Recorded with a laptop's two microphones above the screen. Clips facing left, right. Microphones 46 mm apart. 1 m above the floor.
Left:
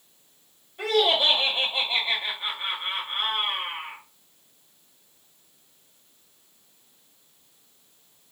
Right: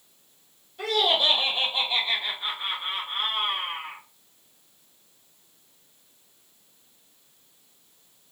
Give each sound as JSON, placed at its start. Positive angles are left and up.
{"t": 0.8, "sound": "laughter", "side_deg": 20, "distance_m": 1.2}